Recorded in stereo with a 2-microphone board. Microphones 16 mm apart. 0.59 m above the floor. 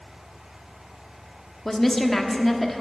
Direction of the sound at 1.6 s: 15° left (ahead or behind).